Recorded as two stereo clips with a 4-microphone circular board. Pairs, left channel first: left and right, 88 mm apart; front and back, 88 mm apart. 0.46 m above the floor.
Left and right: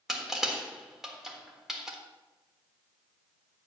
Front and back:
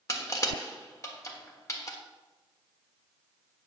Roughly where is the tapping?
I don't hear tapping.